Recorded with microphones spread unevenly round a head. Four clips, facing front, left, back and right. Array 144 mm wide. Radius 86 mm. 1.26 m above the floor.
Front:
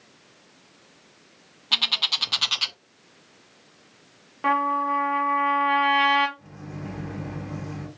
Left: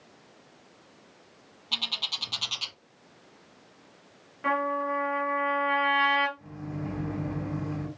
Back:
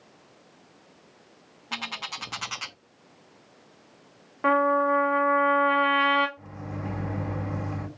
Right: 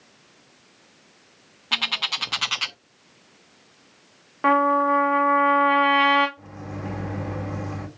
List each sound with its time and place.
1.7 s a bird: 75° right, 0.6 m
4.4 s a trumpet: 75° right, 2.5 m
6.4 s a microwave: 100° right, 2.5 m